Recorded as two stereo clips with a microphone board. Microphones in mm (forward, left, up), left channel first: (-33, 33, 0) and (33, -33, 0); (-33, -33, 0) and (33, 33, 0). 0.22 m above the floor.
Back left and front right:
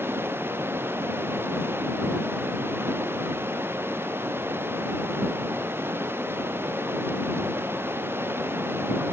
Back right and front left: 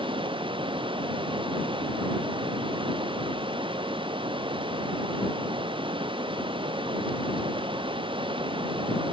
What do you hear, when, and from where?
0.0 s running water: 20° left